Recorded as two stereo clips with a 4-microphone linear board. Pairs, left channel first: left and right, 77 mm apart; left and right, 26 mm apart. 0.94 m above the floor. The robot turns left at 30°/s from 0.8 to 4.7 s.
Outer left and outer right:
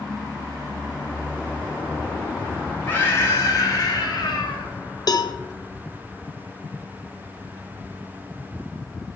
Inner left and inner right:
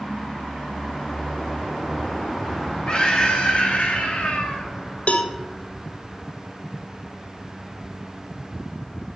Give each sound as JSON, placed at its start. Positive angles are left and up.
{"t": 2.9, "sound": "a scream", "azimuth_deg": 155, "distance_m": 2.5}
{"t": 5.1, "sound": "a cowbell", "side_deg": 55, "distance_m": 0.6}